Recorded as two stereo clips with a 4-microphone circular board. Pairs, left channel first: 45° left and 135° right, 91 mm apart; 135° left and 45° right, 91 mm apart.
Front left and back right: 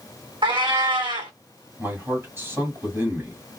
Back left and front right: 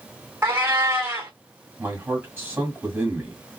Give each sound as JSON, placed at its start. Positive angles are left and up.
{"t": 0.4, "sound": "a cat meowing", "azimuth_deg": -110, "distance_m": 1.2}
{"t": 1.8, "sound": "a man speaking", "azimuth_deg": -95, "distance_m": 1.8}